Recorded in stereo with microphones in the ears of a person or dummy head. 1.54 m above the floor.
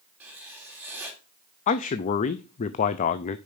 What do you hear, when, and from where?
0.2 s writing: 5° right (ahead or behind), 2.5 m
1.7 s a man speaking: 40° left (ahead or behind), 0.5 m